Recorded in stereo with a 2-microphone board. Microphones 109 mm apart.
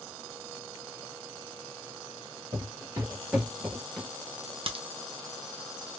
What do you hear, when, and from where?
2.5 s footsteps: 35° right (ahead or behind), 1.8 m; by 4.1 s 10° left (ahead or behind), 1.4 m
4.7 s a crack: 55° right (ahead or behind), 0.5 m